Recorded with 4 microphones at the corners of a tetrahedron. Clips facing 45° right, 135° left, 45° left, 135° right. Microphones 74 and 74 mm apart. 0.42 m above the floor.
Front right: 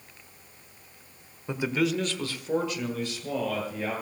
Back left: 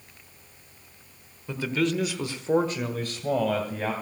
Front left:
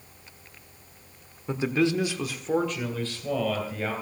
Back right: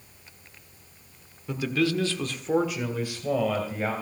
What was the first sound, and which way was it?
A man speaking, 5° left.